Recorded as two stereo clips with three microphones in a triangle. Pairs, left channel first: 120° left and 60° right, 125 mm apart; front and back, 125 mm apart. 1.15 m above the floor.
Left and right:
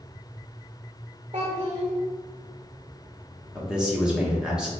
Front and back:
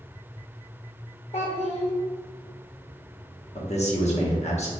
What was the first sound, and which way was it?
A child speaking, 25° right.